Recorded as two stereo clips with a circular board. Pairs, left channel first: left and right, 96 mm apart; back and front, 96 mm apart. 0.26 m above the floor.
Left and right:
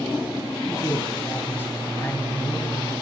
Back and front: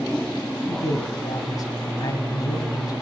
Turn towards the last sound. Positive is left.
turn(degrees=150)